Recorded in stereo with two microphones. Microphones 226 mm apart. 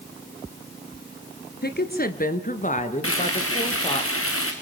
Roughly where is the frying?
Left.